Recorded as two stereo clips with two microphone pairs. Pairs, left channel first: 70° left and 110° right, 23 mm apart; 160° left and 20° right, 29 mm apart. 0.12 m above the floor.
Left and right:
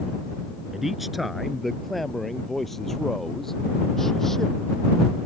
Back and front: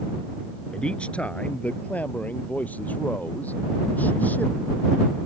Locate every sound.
0.7 s a man speaking: straight behind; by 4.7 s 150° left